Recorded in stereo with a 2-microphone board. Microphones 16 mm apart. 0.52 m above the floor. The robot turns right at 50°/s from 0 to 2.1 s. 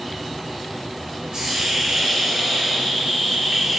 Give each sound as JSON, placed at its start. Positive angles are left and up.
{"t": 1.3, "sound": "a hiss", "azimuth_deg": -70, "distance_m": 0.9}